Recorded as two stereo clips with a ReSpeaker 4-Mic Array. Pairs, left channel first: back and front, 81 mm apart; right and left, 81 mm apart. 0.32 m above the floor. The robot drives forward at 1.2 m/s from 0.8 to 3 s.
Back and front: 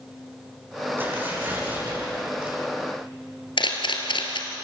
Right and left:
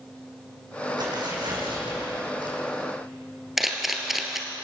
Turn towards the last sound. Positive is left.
turn(degrees=180)